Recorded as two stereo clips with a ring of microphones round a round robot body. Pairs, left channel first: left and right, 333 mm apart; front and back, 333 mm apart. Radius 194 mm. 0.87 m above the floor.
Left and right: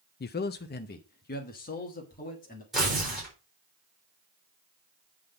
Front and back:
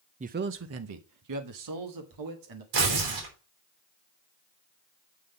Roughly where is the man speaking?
Behind left.